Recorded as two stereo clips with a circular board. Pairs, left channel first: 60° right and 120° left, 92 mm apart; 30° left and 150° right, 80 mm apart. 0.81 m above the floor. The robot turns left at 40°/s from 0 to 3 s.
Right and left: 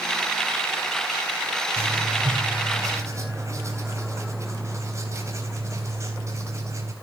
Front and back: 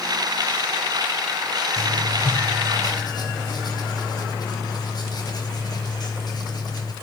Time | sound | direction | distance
1.8 | writing | 110° left | 3.5 m